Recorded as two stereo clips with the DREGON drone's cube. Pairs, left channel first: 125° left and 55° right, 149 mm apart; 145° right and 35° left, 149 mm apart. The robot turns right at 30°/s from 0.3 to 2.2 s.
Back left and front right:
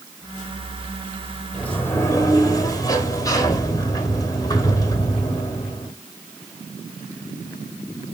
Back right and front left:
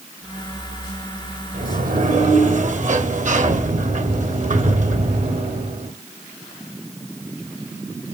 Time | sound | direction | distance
1.5 | a sliding door | 40° left | 2 m